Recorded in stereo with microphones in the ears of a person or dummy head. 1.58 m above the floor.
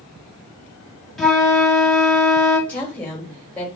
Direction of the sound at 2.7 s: 10° left (ahead or behind).